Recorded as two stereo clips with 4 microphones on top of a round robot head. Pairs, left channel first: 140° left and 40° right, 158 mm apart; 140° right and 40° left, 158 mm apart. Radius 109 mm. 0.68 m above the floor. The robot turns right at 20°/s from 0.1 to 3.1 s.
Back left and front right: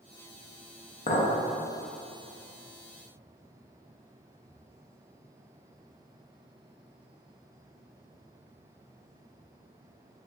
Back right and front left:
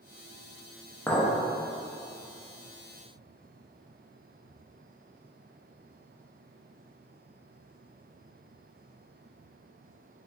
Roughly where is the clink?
Behind left.